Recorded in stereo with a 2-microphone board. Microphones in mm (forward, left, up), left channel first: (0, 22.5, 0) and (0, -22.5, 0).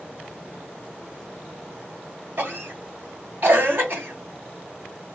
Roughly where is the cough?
Right.